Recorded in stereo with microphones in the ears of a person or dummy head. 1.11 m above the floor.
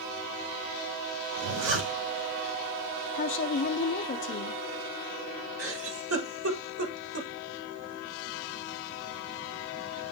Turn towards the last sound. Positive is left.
turn(degrees=-80)